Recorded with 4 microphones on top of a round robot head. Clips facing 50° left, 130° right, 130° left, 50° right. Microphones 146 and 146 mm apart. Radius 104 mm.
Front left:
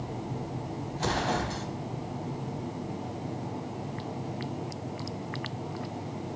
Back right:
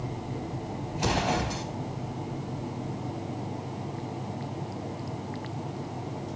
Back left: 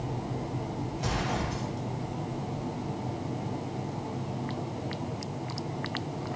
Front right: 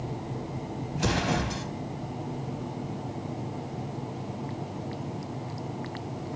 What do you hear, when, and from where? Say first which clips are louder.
0.9 s an explosion: back right 2 dB, front right 6 dB; 60° right, 3 m